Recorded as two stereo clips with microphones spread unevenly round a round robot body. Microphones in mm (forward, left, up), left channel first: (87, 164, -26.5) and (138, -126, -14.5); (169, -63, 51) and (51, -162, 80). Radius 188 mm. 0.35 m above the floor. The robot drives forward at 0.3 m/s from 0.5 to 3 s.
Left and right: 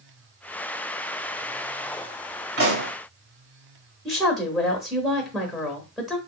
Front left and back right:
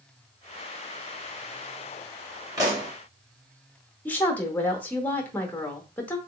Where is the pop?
70° right, 1.8 m; by 2.9 s 75° right, 1.8 m.